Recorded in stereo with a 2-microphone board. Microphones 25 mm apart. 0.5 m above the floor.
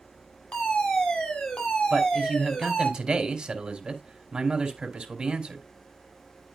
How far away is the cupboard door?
No cupboard door in this recording.